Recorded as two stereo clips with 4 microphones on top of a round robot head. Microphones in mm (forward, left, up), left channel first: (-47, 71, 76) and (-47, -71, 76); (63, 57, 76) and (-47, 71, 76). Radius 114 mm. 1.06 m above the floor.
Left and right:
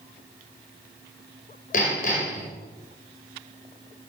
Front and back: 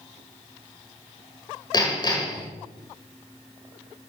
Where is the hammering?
50° left, 4.5 m.